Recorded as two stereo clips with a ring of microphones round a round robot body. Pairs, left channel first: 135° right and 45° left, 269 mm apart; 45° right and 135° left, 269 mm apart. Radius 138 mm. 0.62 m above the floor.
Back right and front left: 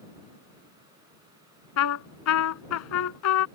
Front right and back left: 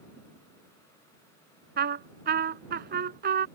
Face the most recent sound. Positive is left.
turn(degrees=-170)